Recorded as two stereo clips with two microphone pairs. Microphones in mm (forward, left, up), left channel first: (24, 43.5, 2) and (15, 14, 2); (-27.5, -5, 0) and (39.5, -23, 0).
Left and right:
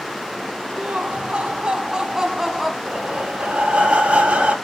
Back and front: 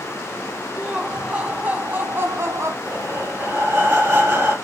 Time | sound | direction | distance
0.8 | laughter | 95° right | 2.5 m
2.9 | breathing | 75° right | 3.5 m